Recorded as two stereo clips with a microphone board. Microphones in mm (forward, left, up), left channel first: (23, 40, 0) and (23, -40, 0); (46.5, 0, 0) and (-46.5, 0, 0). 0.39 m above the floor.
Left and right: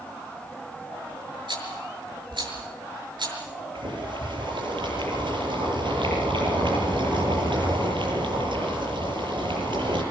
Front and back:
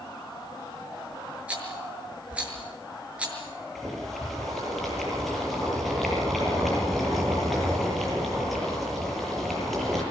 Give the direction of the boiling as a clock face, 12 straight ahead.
3 o'clock.